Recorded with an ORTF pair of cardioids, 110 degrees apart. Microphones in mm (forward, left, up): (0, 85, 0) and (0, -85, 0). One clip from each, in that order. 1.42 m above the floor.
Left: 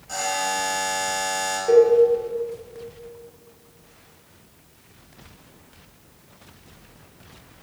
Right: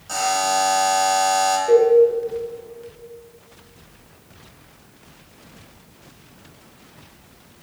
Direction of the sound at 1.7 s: 15° left.